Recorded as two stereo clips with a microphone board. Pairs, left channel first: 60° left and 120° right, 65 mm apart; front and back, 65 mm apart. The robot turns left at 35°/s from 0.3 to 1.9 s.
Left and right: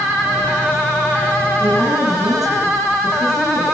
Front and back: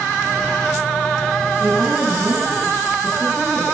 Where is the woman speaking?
125° right, 9.5 m; by 3.6 s 135° right, 9.5 m.